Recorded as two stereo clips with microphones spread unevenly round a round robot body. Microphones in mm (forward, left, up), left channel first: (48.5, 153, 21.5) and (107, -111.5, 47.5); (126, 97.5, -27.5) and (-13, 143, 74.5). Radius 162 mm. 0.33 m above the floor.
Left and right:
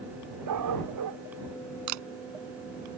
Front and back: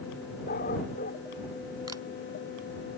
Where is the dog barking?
65° right.